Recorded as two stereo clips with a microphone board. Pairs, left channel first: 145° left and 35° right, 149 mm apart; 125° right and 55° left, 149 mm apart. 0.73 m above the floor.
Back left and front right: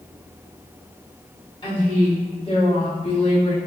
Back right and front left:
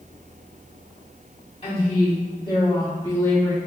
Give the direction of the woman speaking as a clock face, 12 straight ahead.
6 o'clock.